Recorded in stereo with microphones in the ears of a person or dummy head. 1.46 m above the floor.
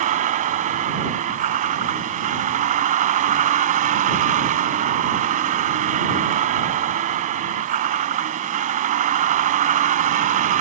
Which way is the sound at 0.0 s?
40° right (ahead or behind).